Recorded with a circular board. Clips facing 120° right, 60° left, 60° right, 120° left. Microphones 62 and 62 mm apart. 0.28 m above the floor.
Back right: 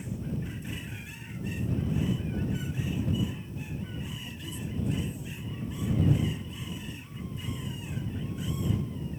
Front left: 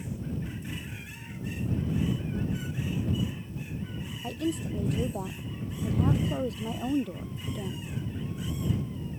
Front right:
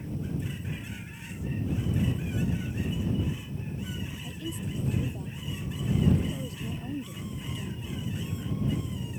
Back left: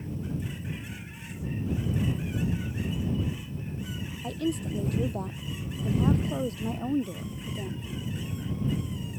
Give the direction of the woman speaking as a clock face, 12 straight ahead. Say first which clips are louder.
Front left 8 dB, back left 11 dB; 9 o'clock.